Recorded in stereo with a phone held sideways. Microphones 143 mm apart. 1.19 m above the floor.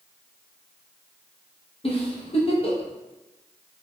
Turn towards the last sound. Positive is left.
turn(degrees=40)  # may be behind; listen again after turning